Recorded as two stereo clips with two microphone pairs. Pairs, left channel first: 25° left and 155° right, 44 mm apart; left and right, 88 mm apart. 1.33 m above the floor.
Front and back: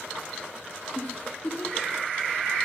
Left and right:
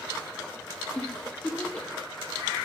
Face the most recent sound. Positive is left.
turn(degrees=15)